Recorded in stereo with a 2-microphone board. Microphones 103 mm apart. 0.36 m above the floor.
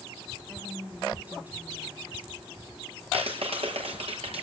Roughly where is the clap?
Right.